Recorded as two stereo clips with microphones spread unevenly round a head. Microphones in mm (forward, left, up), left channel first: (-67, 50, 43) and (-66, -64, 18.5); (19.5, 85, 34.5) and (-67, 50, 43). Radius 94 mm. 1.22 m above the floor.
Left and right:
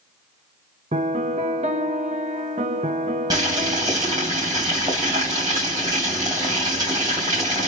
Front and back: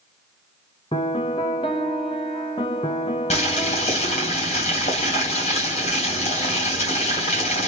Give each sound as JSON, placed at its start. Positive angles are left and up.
{"t": 0.9, "sound": "a piano", "azimuth_deg": -35, "distance_m": 0.9}
{"t": 3.3, "sound": "boiling", "azimuth_deg": -15, "distance_m": 3.0}